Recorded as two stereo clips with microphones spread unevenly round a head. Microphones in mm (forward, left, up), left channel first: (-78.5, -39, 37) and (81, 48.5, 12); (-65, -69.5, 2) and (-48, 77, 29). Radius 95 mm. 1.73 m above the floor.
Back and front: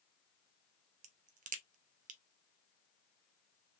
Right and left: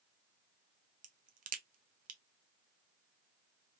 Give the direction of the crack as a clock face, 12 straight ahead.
9 o'clock.